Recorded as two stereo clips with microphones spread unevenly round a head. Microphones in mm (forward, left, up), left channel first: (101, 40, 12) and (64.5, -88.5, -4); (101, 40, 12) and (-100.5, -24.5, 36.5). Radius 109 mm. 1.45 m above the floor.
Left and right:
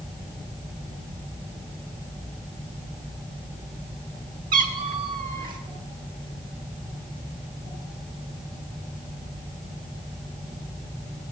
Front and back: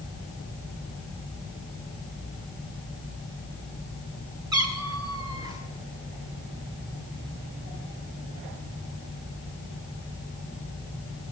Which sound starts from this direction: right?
A cat meowing, at 4.5 s.